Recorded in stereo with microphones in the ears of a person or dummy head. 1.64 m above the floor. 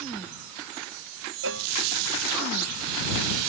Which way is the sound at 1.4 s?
80° right.